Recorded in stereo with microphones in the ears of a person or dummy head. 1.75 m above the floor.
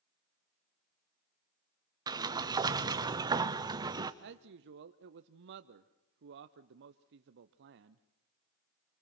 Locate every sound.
2.1 s a sliding door: 15° right (ahead or behind), 0.6 m
4.2 s a man speaking: 60° right (ahead or behind), 0.6 m